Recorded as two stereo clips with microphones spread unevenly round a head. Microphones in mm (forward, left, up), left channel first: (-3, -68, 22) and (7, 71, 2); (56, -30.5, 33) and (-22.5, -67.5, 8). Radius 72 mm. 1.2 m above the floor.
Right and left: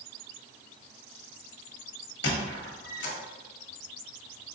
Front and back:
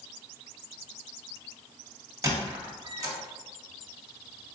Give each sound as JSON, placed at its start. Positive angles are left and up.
{"t": 2.2, "sound": "a squeak", "azimuth_deg": -105, "distance_m": 1.5}